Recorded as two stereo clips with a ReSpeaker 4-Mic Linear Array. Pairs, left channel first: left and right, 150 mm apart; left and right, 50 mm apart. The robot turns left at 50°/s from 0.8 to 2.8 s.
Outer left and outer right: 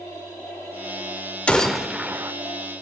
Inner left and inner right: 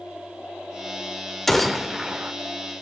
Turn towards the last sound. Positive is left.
turn(degrees=-55)